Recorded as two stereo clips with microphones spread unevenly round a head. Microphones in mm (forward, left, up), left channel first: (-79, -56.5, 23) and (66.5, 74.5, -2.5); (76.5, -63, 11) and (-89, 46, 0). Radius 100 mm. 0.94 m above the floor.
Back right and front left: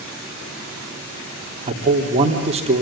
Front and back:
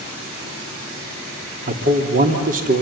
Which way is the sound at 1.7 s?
100° left.